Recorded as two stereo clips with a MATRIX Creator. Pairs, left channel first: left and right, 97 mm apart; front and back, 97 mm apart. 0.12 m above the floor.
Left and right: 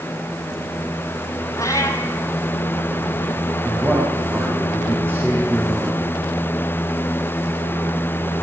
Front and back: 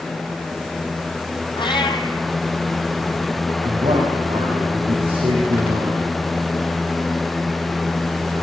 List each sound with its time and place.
1.6 s a cat meowing: 35° left, 1.9 m
3.6 s a man speaking: 155° right, 8 m